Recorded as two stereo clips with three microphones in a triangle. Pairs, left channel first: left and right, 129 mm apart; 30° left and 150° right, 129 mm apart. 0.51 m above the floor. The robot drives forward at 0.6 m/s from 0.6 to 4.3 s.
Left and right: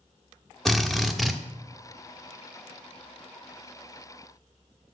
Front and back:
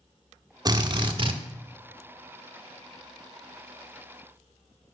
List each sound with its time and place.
0.7 s a drill: 175° left, 1.1 m; by 1.4 s straight behind, 1.4 m